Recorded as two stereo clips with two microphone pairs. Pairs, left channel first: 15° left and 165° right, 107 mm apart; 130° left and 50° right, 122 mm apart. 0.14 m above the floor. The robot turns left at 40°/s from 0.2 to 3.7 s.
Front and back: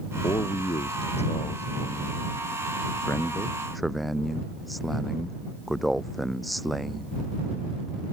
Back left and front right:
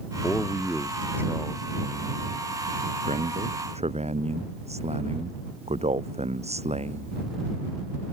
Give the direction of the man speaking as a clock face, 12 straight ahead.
10 o'clock.